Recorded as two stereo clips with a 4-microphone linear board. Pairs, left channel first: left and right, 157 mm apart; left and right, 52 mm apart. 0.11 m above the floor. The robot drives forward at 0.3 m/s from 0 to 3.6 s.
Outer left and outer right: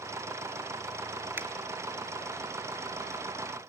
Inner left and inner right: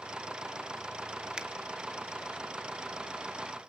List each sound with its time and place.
1.4 s a finger snap: 15° right (ahead or behind), 1.9 m